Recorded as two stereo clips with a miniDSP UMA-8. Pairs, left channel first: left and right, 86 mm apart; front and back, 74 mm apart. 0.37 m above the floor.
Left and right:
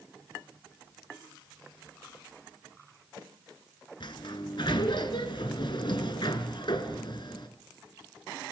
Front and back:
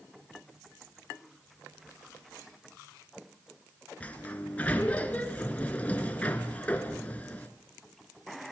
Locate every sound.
4.0 s a sliding door: 70° left, 1.0 m